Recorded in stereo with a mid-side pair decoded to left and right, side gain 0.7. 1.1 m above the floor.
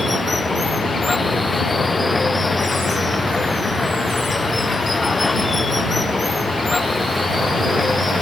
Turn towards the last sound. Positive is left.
turn(degrees=15)